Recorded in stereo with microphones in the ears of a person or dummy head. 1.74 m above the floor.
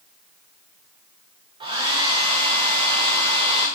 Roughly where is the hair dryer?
Right.